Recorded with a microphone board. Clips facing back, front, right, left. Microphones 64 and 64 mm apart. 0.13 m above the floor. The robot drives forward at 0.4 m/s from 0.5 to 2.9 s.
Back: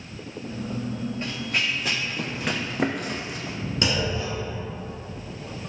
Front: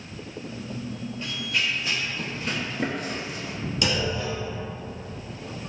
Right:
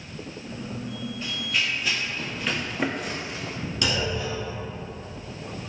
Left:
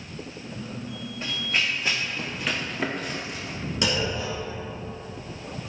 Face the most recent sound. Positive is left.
turn(degrees=150)